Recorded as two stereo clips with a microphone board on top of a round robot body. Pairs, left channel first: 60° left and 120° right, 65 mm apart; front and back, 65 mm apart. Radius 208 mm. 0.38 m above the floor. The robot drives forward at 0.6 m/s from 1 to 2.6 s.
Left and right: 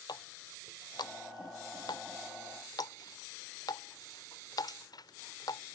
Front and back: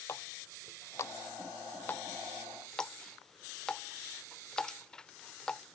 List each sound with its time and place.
0.1 s a running tap: 45° left; by 5.8 s 80° left